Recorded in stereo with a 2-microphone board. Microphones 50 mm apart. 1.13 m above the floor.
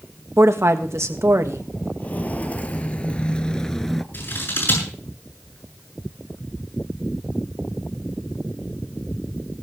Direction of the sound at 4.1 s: 50° left (ahead or behind).